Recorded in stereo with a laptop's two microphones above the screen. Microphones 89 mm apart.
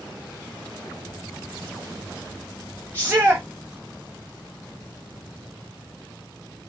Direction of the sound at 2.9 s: 25° right (ahead or behind).